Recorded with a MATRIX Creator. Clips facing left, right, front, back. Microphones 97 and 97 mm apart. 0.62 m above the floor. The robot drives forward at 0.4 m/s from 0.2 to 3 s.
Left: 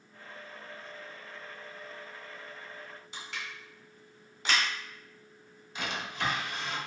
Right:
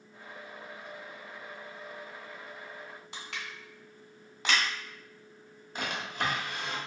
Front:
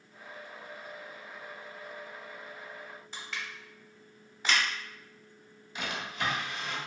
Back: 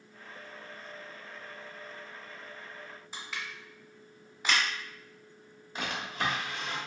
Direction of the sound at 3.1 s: 95° right.